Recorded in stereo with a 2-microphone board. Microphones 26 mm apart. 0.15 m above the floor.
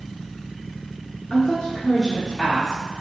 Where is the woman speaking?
30° left (ahead or behind), 1.7 m; by 2.8 s 5° right (ahead or behind), 1.6 m.